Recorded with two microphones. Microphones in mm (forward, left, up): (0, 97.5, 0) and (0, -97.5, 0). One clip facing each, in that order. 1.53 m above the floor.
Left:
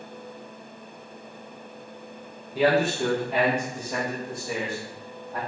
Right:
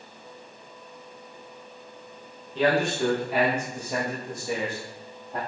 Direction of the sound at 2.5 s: 10° left (ahead or behind).